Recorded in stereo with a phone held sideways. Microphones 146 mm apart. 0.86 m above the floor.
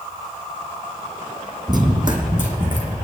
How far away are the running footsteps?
About 1.2 m.